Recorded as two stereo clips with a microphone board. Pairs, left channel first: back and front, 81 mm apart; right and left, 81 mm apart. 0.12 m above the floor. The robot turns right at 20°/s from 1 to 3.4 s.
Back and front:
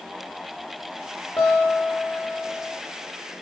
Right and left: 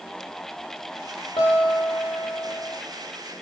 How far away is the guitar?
About 8 m.